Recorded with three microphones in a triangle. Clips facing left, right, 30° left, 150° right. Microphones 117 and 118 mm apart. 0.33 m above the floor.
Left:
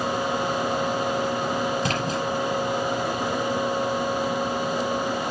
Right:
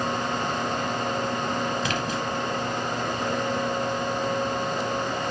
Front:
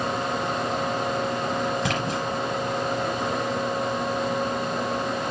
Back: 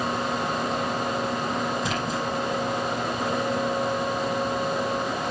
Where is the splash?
45° left, 5 m.